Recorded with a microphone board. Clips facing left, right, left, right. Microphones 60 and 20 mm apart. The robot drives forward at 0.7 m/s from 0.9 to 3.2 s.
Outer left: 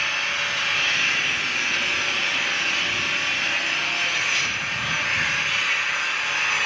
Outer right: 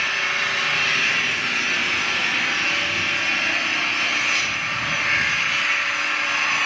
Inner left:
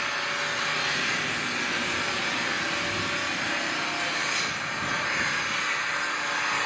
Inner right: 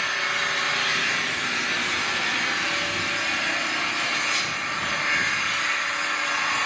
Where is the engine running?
65° right (ahead or behind), 2.5 m; by 6.7 s 50° right (ahead or behind), 2.5 m.